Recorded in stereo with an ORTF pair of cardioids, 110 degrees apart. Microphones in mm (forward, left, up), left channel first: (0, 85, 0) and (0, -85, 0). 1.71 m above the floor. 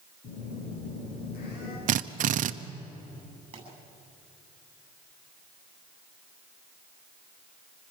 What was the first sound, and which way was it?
A phone buzzing, 65° left.